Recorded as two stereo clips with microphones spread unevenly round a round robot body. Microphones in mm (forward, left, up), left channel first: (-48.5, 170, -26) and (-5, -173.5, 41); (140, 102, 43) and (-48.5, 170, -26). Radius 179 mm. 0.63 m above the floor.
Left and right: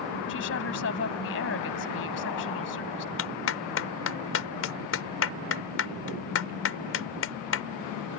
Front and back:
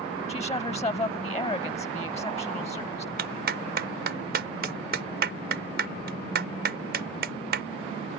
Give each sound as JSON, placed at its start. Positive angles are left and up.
{"t": 0.3, "sound": "a woman speaking", "azimuth_deg": 40}
{"t": 3.2, "sound": "a clap", "azimuth_deg": 140}